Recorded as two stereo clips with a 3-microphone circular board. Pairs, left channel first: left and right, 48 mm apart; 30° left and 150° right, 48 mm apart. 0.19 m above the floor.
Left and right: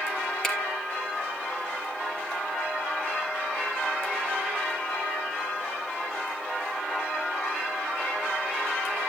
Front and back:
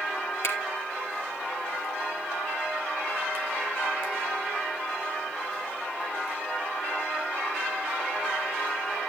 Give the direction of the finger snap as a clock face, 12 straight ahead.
12 o'clock.